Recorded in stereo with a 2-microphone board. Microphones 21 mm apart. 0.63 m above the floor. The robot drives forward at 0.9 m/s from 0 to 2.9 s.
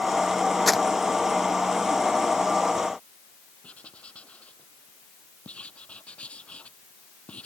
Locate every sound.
0.7 s crumpling: centre (ahead or behind)
3.6 s writing: 75° left (ahead or behind)